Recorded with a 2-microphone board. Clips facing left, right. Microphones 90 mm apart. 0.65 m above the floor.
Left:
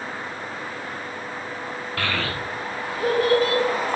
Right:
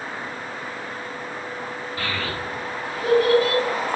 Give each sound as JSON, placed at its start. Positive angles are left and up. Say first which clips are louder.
{"t": 2.0, "sound": "a child speaking", "louder": "left 2 dB", "side_deg": 65, "distance_m": 0.5}